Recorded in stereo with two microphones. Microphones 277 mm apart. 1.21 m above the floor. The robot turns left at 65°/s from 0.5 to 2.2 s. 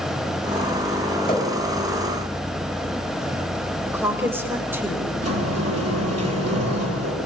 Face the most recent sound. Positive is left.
turn(degrees=-60)  # may be behind; listen again after turning